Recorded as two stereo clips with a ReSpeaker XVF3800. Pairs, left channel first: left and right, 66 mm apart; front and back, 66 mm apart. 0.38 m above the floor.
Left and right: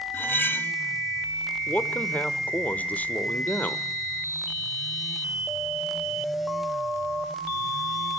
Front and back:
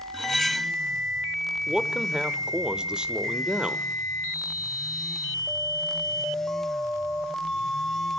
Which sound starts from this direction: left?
Cutlery clinking, at 0.1 s.